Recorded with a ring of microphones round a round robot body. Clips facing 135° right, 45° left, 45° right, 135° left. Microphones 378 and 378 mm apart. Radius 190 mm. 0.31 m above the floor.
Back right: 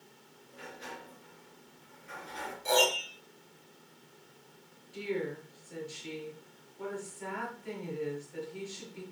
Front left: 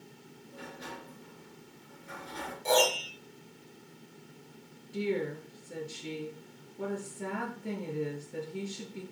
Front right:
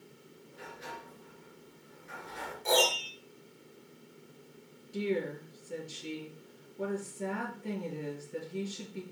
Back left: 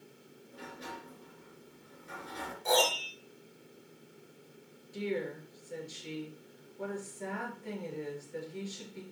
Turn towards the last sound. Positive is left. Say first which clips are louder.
# front left 3 dB, front right 3 dB
turn(degrees=5)